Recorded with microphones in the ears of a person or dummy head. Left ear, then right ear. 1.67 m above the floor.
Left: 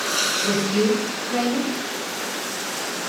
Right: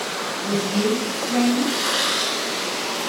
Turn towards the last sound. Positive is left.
turn(degrees=30)  # may be behind; listen again after turning